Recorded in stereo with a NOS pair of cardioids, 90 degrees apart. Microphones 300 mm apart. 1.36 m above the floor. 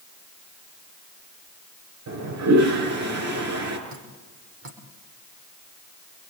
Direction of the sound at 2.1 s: 60° right.